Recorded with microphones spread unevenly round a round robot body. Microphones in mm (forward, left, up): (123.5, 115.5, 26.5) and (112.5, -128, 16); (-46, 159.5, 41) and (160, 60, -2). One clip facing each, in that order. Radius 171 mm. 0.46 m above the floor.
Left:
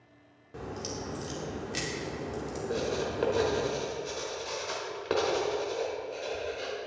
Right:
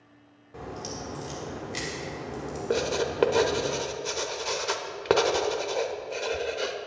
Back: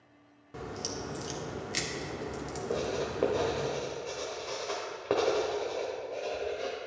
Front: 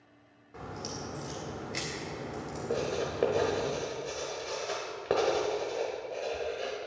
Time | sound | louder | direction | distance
0.5 | a crack | even, back 2 dB | 160° left | 1.4 m
2.7 | writing | right 5 dB, front 1 dB | 105° right | 0.9 m